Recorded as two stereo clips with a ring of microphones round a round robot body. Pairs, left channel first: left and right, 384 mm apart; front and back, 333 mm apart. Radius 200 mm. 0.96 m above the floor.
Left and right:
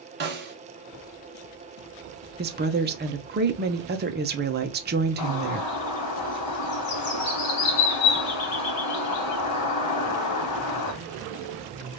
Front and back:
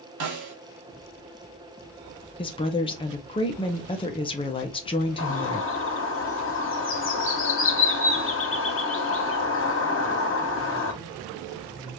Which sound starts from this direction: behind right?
A snare drum, at 0.2 s.